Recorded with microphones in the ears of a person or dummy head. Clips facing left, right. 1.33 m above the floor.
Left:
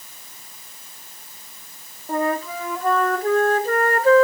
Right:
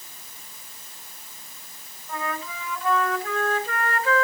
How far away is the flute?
About 0.9 m.